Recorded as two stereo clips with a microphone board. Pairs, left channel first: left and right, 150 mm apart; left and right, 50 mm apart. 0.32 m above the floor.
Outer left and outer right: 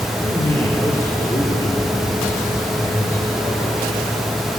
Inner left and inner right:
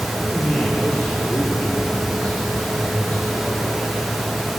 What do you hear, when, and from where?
0.2 s a man speaking: 30° left (ahead or behind), 5.5 m